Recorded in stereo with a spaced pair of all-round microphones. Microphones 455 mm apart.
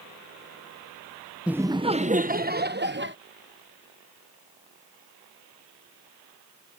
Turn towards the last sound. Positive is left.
turn(degrees=-25)  # may be behind; listen again after turning